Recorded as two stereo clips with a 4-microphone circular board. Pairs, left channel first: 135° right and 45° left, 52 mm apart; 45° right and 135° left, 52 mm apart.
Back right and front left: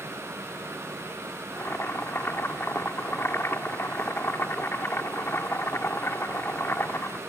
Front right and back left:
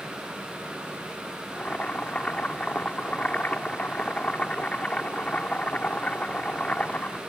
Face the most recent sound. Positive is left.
turn(degrees=-105)